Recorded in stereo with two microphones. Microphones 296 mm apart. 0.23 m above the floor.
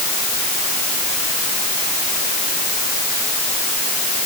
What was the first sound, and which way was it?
Only background noise.